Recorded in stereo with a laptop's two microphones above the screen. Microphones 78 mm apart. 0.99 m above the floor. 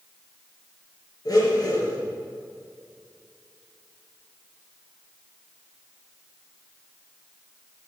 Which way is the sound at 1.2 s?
50° left (ahead or behind).